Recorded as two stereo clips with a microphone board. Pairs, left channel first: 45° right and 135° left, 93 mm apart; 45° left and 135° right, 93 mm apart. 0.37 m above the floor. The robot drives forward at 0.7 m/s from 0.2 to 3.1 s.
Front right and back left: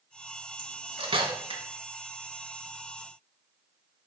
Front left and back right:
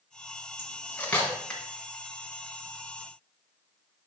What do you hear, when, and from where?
0.6 s cutlery clinking: 110° left, 1.9 m; by 1.6 s 125° left, 2.5 m